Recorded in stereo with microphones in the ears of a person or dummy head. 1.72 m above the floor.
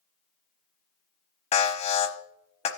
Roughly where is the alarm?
Left.